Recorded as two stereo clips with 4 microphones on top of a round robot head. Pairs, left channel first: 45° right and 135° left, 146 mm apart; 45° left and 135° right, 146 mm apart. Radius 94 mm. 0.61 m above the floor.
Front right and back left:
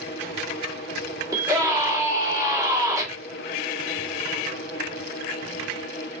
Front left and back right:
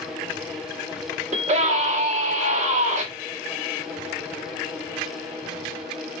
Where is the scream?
165° right, 2 m.